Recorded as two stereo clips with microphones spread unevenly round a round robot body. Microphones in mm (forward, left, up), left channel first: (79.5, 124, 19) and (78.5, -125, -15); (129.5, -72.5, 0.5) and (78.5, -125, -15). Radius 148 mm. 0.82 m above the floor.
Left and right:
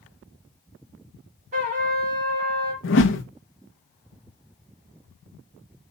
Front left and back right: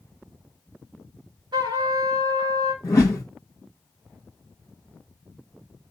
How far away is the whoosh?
About 1.0 m.